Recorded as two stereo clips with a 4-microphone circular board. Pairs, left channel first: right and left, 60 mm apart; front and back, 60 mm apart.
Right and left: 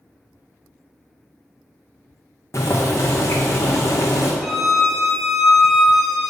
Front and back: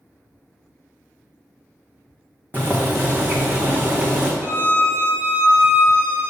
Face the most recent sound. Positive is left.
turn(degrees=180)